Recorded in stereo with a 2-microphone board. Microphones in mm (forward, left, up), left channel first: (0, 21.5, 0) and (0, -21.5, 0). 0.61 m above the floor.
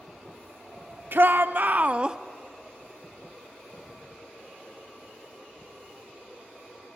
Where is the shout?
60° right (ahead or behind), 1.0 m; by 2.2 s 15° right (ahead or behind), 0.6 m.